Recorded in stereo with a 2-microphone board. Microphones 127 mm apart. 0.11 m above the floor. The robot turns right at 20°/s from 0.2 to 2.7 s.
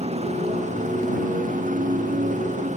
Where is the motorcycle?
55° right (ahead or behind); by 2.8 s 70° right (ahead or behind).